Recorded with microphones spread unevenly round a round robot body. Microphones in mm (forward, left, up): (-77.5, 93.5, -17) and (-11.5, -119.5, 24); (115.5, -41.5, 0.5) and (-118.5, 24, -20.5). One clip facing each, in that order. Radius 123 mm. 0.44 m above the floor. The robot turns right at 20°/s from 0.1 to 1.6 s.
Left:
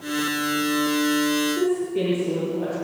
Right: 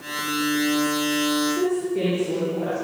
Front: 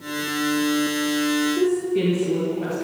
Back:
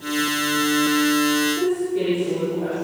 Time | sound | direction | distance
1.6 | a woman speaking | 25° left | 7 m